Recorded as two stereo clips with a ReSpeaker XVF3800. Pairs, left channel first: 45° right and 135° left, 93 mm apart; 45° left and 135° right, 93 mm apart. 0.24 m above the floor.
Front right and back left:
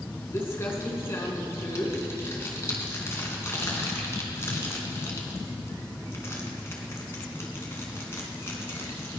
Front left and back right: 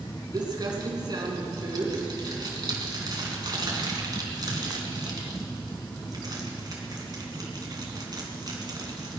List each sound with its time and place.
0.3 s crumpling: 105° right, 3 m